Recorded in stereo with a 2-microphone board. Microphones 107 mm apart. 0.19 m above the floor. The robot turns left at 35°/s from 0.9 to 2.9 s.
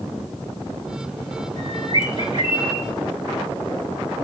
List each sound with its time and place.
1.6 s a bird: 140° left, 3.5 m; by 2.8 s 95° left, 3.5 m